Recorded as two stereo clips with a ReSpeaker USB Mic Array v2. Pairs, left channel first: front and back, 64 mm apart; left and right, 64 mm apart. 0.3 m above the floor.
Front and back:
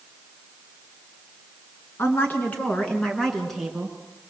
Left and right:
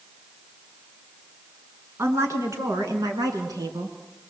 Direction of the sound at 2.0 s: 50° right.